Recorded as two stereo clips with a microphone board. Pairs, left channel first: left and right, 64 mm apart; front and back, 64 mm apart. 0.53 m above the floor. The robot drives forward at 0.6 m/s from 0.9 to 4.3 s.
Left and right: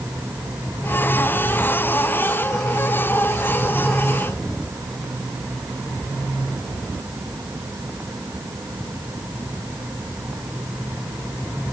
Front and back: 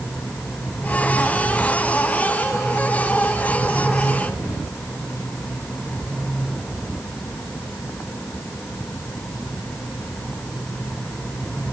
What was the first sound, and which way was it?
Only background noise.